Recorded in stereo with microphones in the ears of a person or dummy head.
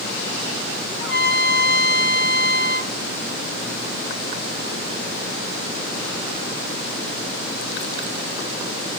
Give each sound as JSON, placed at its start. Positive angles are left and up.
{"t": 1.0, "sound": "a trumpet", "side_deg": 70, "distance_m": 1.3}